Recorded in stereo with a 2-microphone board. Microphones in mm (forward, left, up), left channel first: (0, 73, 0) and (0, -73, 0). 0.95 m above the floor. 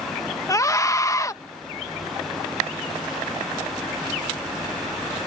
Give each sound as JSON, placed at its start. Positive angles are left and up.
{"t": 0.5, "sound": "a scream", "side_deg": 20}